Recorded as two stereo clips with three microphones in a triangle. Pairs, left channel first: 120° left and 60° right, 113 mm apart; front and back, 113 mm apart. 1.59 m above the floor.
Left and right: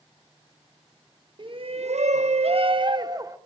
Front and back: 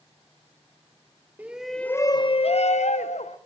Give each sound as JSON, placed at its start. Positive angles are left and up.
{"t": 1.4, "sound": "a shout", "azimuth_deg": -105, "distance_m": 1.0}